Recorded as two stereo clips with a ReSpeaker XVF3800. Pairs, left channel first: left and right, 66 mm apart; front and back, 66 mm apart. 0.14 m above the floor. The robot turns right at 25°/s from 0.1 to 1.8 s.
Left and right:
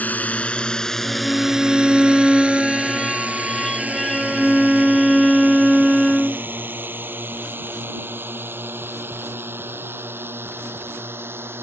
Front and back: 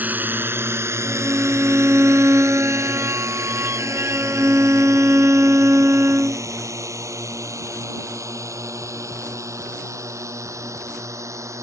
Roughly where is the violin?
Behind left.